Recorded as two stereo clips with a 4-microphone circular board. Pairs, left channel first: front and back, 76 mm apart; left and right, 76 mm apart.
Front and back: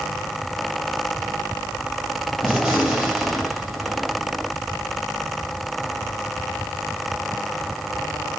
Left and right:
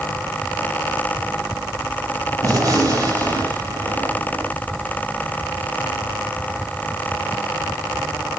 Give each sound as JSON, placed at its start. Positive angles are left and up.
{"t": 2.4, "sound": "a gunshot", "azimuth_deg": -110, "distance_m": 1.9}